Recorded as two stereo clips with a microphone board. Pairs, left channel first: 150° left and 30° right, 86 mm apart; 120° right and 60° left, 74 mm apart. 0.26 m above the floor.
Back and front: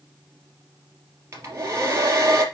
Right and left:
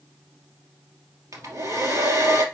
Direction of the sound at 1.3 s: 25° left.